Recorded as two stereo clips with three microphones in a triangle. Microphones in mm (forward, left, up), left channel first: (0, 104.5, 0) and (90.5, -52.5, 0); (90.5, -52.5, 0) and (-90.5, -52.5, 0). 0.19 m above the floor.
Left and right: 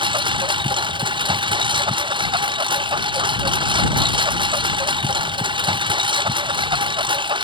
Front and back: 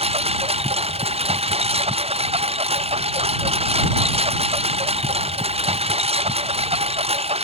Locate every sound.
0.0 s a lawn mower: 125° right